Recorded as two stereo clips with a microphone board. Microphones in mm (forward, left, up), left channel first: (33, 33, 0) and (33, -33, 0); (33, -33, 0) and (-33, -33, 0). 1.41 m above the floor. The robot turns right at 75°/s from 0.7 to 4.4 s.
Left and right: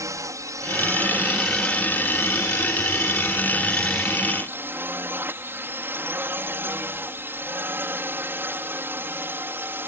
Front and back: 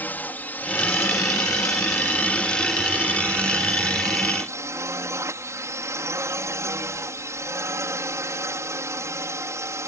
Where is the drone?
60° right; by 9.9 s 145° right.